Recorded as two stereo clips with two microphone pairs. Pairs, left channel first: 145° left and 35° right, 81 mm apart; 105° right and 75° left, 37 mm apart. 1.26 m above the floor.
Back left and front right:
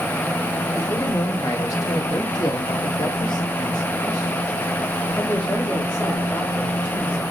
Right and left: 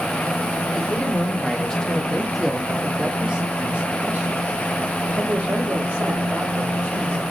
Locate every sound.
0.7 s a man speaking: 160° right, 1.8 m; by 7.2 s 75° left, 3 m